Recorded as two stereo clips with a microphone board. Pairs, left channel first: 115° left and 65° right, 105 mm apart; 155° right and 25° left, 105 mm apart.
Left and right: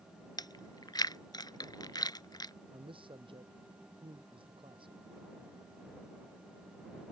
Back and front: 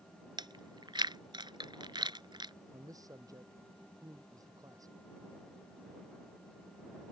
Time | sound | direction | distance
0.4 | chewing | 65° left | ?
2.7 | a man speaking | 35° right | ?